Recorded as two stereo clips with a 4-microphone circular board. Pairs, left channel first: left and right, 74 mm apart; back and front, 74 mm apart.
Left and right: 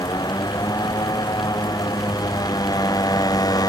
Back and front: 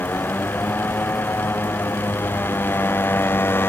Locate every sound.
0.0 s a motorcycle: 115° left; by 3.7 s 120° left